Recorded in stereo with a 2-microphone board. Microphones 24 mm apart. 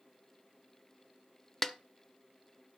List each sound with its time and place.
1.6 s a snare drum: 15° left (ahead or behind), 0.7 m